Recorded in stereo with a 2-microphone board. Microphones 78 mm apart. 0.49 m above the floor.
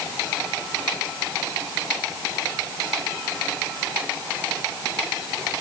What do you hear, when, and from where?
Only background noise.